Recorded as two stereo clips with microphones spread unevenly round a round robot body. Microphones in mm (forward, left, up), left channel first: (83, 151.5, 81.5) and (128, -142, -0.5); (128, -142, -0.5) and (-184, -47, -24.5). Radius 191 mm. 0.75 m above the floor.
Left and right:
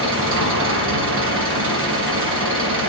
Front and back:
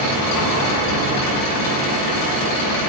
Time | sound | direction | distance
0.0 | an engine running | 35° right | 4.5 m